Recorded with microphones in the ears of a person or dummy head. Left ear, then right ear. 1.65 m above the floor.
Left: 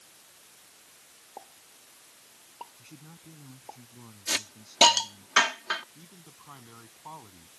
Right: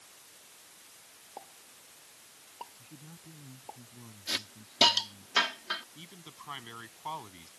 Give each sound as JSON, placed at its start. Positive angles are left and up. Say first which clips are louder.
{"t": 1.4, "sound": "a pop", "louder": "left 1 dB", "side_deg": 5}
{"t": 2.8, "sound": "a man speaking", "louder": "left 1 dB", "side_deg": 90}
{"t": 4.3, "sound": "a hiss", "louder": "left 4 dB", "side_deg": 30}
{"t": 6.0, "sound": "a man speaking", "louder": "right 4 dB", "side_deg": -65}